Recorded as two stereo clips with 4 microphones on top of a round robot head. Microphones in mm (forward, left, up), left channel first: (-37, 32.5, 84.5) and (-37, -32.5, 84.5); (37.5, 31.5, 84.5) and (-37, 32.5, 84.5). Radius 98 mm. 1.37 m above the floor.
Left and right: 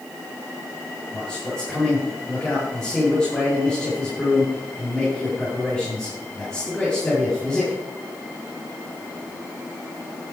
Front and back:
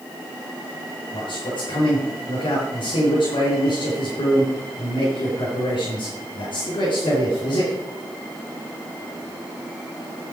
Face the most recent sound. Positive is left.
turn(degrees=15)